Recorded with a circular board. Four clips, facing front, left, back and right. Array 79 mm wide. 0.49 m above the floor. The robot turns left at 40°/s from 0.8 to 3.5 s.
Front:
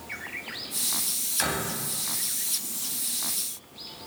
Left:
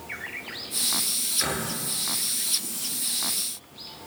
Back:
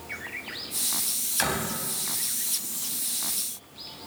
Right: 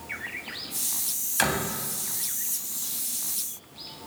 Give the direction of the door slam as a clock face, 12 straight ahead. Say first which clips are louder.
Right 4 dB, back 1 dB; 3 o'clock.